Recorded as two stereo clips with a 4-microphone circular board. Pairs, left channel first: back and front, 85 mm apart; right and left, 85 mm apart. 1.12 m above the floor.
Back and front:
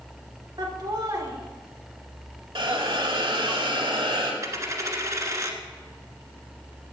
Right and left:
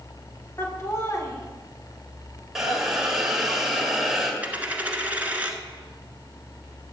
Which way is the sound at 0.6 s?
35° right.